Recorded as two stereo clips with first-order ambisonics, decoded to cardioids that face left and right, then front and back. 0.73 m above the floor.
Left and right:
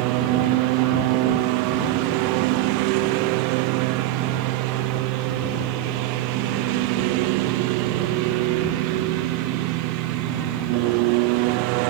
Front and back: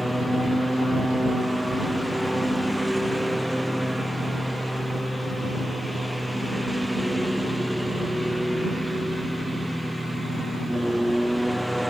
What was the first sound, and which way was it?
A lawn mower, 90° right.